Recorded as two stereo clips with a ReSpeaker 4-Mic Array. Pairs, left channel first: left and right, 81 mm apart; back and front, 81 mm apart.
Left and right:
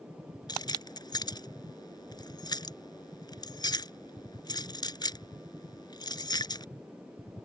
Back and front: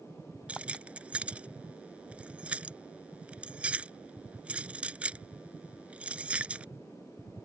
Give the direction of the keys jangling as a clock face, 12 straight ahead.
10 o'clock.